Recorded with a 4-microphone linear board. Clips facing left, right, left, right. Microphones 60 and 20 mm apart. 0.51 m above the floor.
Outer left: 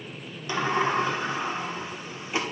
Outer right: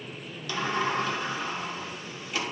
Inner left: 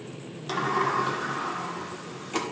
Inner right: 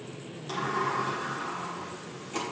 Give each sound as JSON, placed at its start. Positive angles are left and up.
{"t": 0.5, "sound": "a sliding door", "side_deg": 30, "distance_m": 1.3}